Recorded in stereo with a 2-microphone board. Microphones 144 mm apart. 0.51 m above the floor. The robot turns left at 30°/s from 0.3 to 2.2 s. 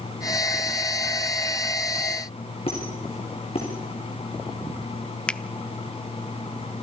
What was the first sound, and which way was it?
A squeak, 40° left (ahead or behind).